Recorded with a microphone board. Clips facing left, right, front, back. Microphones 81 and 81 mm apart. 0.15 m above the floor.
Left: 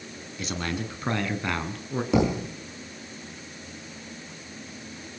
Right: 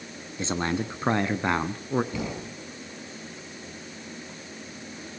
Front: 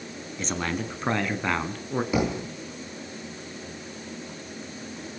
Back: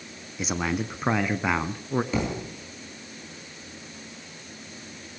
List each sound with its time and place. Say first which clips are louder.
0.4 s a man speaking: right 4 dB, back 2 dB; 105° right, 1.1 m
2.1 s a thud: left 9 dB, front 3 dB; 75° left, 3.5 m